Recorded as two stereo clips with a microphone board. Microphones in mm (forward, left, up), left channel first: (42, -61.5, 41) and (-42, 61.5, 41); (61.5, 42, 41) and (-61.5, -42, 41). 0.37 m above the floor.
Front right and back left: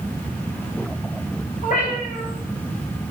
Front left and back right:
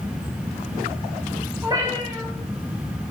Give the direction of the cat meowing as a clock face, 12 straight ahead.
3 o'clock.